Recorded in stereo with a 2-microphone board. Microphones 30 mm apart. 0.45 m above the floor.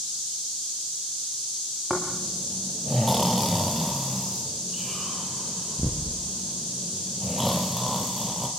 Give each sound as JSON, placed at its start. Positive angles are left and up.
{"t": 1.9, "sound": "snoring", "side_deg": 0, "distance_m": 3.5}